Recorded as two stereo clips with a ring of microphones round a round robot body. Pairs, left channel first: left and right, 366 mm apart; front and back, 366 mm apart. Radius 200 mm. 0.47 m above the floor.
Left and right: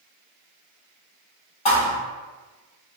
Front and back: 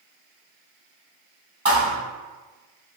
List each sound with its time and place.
1.6 s a thud: 105° left, 1.5 m